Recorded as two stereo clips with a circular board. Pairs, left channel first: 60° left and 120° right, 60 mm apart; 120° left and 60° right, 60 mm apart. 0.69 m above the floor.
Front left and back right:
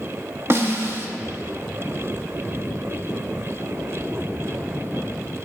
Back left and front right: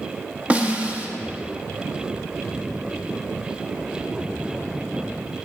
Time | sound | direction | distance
0.5 | a snare drum | 115° right | 0.7 m